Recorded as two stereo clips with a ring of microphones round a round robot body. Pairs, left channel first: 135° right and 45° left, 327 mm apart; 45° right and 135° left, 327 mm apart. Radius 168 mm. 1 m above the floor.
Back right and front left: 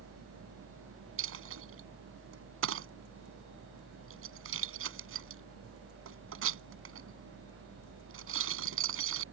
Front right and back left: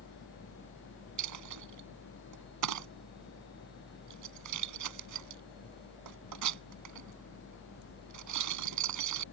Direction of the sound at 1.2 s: 95° left.